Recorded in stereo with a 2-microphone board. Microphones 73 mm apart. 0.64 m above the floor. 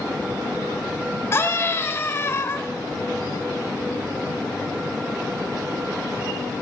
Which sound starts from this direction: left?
A scream, at 1.3 s.